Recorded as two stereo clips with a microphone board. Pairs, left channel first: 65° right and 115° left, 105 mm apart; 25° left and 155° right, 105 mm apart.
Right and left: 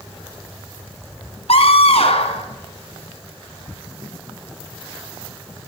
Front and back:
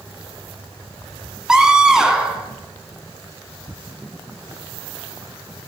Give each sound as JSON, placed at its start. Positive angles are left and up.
{"t": 1.5, "sound": "a scream", "azimuth_deg": -75, "distance_m": 2.5}